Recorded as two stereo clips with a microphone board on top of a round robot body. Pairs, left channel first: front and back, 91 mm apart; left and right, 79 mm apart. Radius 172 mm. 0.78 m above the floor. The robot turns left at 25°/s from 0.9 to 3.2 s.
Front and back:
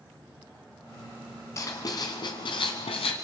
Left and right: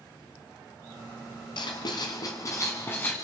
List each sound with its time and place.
1.6 s writing: 60° left, 1.1 m; by 3.1 s 20° left, 1.1 m